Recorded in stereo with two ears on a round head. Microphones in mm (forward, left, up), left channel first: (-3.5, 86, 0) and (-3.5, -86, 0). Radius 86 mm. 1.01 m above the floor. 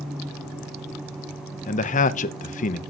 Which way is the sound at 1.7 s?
40° left (ahead or behind).